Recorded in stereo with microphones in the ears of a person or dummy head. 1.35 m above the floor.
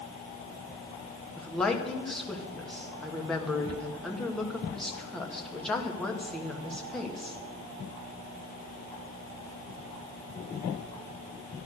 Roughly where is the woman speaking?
Centre.